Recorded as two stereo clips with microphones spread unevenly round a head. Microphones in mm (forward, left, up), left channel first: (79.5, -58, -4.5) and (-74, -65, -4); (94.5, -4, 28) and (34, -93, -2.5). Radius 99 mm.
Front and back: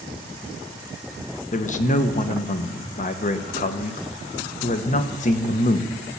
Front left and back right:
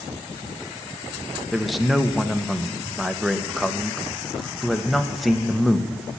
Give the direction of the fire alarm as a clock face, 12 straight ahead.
I don't hear a fire alarm.